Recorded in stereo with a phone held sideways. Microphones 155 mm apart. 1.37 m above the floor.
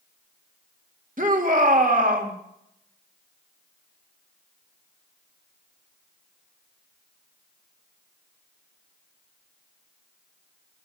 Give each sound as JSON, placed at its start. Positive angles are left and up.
{"t": 1.2, "sound": "a shout", "side_deg": -60, "distance_m": 2.5}